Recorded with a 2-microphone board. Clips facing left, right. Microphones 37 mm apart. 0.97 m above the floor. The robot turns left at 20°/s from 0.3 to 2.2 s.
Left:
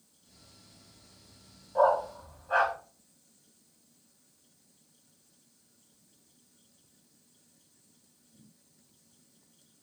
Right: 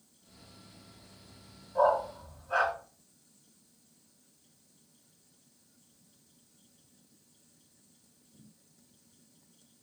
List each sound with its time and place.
1.8 s a dog barking: 25° left (ahead or behind), 1.5 m; by 2.7 s 30° left (ahead or behind), 1.5 m